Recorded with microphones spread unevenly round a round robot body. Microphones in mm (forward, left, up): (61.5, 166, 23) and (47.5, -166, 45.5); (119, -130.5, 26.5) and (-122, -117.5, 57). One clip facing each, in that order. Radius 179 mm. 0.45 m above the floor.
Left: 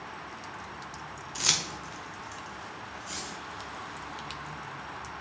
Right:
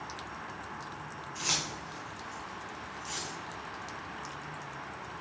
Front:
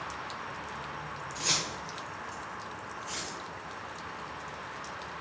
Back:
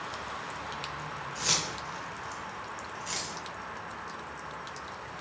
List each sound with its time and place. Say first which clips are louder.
1.4 s keys jangling: left 1 dB, even; 85° left, 1.2 m; by 3.3 s straight behind, 2.5 m